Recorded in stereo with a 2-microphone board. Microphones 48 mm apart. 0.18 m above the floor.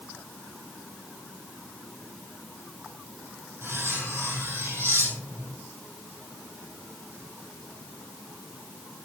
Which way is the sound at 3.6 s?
65° right (ahead or behind).